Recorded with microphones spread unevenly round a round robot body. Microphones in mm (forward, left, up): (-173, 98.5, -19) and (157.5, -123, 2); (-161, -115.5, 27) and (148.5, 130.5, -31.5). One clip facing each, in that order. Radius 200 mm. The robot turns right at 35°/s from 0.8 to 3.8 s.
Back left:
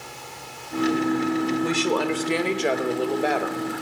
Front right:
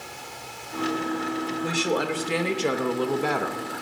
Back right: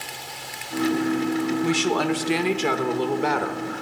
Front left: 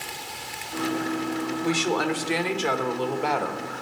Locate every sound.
1.6 s a woman speaking: 150° right, 1.1 m; by 3.7 s 80° right, 1.1 m